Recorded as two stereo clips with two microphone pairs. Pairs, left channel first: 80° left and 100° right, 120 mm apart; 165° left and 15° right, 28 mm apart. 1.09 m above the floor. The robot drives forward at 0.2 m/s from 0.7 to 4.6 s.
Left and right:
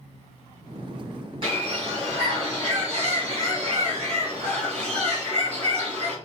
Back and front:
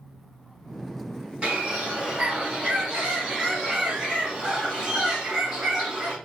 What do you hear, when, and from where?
1.4 s a bird: 60° right, 2.5 m; by 6.2 s 75° right, 2 m